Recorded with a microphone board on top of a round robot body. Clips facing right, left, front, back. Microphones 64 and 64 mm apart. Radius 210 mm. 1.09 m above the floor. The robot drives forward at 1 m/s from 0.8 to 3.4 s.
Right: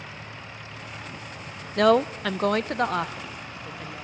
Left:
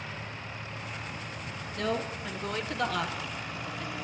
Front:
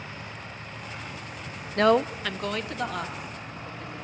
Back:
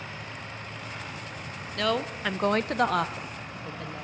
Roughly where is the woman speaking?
Ahead right.